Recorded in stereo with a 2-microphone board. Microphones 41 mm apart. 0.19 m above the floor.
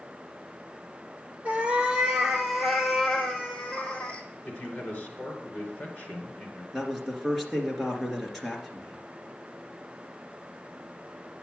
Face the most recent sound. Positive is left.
turn(degrees=0)  # may be behind; listen again after turning